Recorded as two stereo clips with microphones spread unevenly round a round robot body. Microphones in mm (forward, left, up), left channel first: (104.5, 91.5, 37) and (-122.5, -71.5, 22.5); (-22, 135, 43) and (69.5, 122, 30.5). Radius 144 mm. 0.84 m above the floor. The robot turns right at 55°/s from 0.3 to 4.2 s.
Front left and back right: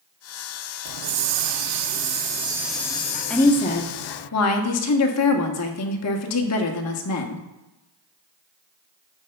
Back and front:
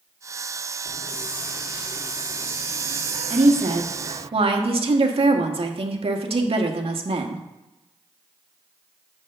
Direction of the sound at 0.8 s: 155° right.